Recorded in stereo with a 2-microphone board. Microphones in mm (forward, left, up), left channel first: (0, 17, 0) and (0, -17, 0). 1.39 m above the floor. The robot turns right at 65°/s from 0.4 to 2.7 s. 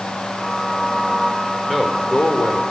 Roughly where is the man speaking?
Ahead.